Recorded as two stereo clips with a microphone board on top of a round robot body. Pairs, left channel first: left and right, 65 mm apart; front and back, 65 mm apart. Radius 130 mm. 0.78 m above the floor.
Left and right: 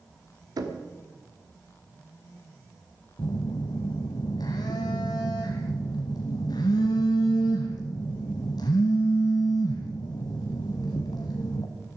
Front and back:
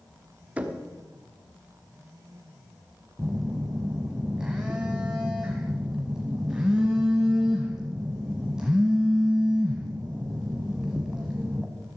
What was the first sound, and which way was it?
Knocking, 110° right.